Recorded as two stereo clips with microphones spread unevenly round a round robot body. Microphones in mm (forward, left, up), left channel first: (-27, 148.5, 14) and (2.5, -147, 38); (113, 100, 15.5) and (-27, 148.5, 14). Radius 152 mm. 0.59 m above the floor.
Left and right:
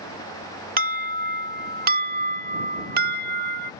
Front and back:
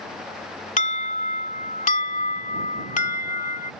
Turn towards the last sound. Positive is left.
turn(degrees=-25)